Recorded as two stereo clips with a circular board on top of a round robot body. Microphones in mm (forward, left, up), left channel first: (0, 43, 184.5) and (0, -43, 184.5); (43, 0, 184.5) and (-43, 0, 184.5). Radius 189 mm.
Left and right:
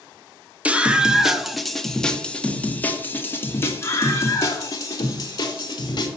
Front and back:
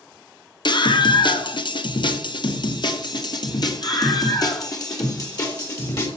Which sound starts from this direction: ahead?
A scream, at 0.7 s.